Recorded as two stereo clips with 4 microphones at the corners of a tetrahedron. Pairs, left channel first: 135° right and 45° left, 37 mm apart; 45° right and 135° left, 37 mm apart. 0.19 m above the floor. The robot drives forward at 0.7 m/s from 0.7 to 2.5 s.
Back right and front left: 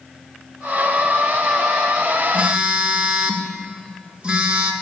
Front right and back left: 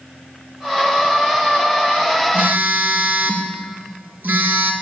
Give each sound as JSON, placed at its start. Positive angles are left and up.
{"t": 2.3, "sound": "a phone buzzing", "azimuth_deg": 100, "distance_m": 0.8}